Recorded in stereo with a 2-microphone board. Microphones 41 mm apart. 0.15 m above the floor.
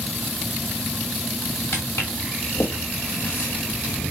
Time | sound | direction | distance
1.7 | footsteps | 75° left (ahead or behind) | 3 m